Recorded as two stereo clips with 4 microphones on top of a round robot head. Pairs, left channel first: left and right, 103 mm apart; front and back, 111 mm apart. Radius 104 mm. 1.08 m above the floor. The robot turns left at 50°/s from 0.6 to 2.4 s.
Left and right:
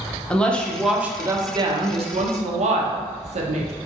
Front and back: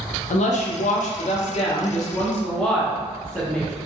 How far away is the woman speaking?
About 0.7 m.